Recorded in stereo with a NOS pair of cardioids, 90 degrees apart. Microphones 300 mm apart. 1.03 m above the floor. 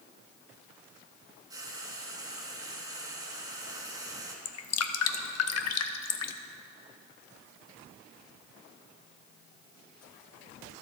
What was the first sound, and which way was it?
Frying, 10° right.